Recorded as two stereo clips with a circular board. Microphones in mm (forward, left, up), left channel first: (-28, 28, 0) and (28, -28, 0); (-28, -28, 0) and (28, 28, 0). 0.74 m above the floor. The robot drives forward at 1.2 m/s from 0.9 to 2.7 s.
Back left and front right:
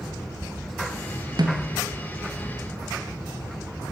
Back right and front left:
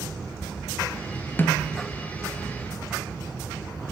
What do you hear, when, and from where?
1.4 s a snare drum: 70° right, 2 m; by 1.8 s 85° right, 2 m